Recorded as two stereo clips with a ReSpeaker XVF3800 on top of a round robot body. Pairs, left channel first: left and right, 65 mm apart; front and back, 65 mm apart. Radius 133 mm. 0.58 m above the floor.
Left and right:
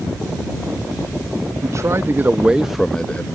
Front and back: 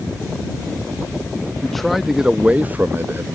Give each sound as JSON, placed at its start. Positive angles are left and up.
{"t": 1.6, "sound": "a man speaking", "azimuth_deg": -85}